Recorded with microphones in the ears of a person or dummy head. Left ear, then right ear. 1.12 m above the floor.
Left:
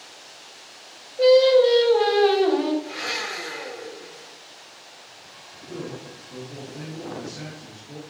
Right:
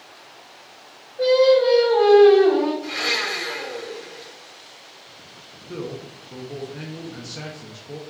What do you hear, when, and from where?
1.2 s singing: 25° left (ahead or behind), 1.3 m
2.8 s a blender: 70° right (ahead or behind), 2 m
5.7 s a man speaking: 65° right (ahead or behind), 0.8 m